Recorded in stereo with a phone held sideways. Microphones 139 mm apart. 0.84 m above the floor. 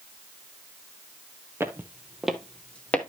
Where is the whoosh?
I don't hear a whoosh.